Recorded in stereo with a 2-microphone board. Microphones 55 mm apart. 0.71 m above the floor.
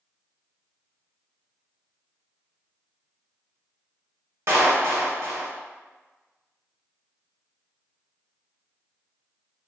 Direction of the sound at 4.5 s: 55° right (ahead or behind).